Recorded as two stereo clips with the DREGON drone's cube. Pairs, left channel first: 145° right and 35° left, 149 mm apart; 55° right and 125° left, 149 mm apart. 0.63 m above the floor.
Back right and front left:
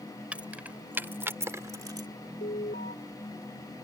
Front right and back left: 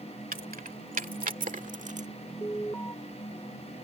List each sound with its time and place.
0.3 s keys jangling: 115° left; by 2.1 s 95° left
2.4 s an alarm: 130° right